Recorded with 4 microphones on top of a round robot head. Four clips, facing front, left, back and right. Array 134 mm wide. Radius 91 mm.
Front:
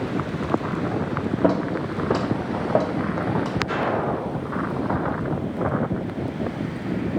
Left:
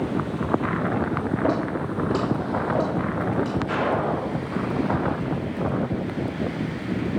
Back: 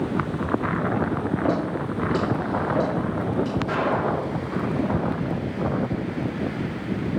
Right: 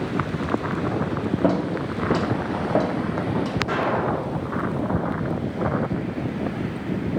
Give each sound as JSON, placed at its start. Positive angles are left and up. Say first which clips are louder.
{"t": 1.4, "sound": "footsteps", "louder": "right 3 dB, front 5 dB", "azimuth_deg": -45, "distance_m": 2.5}
{"t": 3.7, "sound": "an explosion", "louder": "right 1 dB, front 1 dB", "azimuth_deg": -135, "distance_m": 1.9}